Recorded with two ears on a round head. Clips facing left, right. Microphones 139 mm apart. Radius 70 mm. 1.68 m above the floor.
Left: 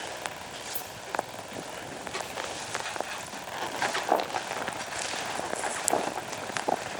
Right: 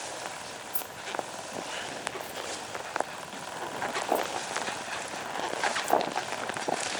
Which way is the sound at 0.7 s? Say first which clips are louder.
Left 2 dB; 30° right (ahead or behind).